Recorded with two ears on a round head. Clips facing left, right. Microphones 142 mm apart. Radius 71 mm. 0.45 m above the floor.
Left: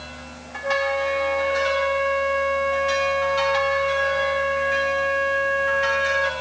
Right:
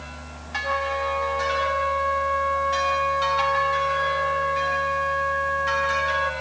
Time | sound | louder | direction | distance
0.6 | a flute | left 4 dB | 30° left (ahead or behind) | ?